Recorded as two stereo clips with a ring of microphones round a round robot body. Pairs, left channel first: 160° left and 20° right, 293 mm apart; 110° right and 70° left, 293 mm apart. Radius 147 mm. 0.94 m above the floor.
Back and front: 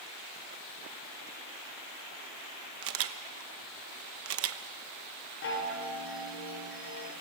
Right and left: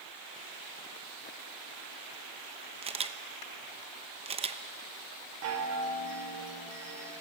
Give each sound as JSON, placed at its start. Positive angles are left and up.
{"t": 2.8, "sound": "a camera shutter", "azimuth_deg": 0, "distance_m": 0.9}
{"t": 5.4, "sound": "a chime", "azimuth_deg": 110, "distance_m": 3.0}